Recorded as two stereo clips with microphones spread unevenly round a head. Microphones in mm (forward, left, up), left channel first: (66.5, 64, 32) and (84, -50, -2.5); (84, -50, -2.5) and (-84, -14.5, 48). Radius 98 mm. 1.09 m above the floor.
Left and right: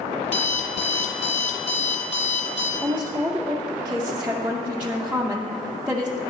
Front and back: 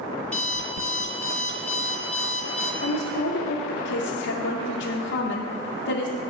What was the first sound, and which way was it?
An alarm clock, 75° left.